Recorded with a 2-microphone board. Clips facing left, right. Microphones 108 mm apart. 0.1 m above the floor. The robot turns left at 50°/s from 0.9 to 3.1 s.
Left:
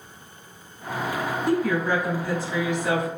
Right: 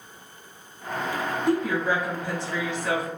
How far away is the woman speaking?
About 1.3 m.